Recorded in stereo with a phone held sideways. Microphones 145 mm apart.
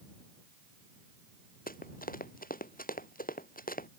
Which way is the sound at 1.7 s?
80° left.